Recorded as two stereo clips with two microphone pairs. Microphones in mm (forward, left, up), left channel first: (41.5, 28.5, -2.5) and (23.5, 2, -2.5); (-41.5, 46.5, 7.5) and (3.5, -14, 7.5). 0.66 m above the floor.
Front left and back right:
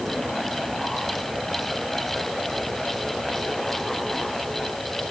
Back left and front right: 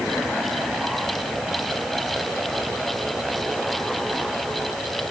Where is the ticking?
No ticking in this recording.